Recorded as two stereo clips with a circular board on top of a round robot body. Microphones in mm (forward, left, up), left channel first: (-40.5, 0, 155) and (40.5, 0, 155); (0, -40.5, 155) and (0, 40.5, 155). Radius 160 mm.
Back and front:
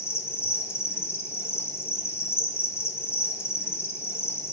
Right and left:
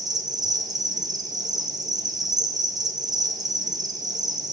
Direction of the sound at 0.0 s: 125° left.